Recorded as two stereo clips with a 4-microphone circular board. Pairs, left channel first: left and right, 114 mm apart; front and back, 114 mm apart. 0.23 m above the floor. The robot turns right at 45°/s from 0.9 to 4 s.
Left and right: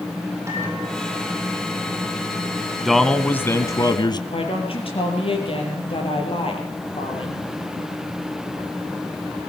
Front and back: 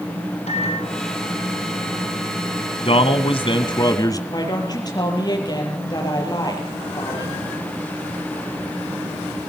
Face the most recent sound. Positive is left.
turn(degrees=55)